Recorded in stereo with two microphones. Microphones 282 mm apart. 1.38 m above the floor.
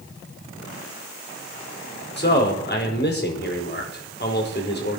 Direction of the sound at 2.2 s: 40° left (ahead or behind).